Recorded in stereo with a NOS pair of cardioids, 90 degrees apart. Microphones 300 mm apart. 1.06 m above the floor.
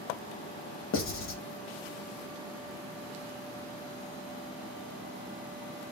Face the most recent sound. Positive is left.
turn(degrees=45)